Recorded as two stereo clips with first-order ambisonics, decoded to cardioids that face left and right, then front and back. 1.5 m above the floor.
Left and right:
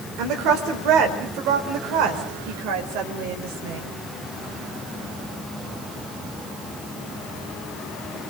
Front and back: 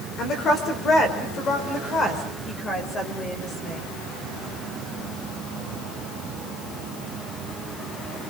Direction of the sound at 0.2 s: 55° right.